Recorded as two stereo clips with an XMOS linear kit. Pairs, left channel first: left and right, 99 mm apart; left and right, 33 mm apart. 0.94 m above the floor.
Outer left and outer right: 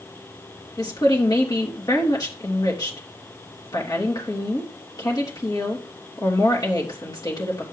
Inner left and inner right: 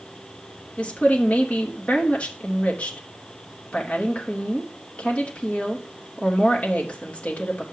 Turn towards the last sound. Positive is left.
turn(degrees=40)  # may be behind; listen again after turning